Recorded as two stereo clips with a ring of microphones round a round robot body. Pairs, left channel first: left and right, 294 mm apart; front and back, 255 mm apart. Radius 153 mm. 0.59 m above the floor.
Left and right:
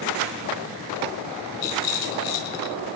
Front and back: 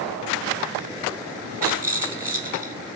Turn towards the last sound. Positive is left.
turn(degrees=100)